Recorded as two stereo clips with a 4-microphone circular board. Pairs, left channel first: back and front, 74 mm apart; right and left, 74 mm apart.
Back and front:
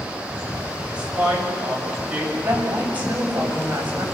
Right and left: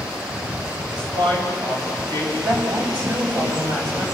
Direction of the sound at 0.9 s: 75° left.